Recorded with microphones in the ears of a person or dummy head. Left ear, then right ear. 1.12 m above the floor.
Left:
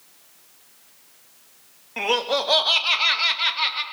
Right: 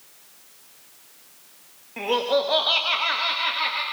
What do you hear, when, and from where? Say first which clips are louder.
2.0 s laughter: even; 50° left (ahead or behind), 1.9 m; by 3.8 s 40° left (ahead or behind), 2.0 m